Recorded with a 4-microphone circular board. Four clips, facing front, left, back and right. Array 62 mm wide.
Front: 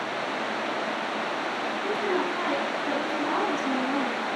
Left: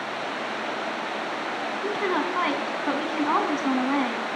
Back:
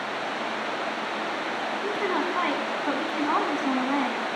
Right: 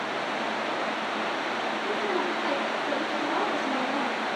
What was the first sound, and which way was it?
A woman speaking, 120° left.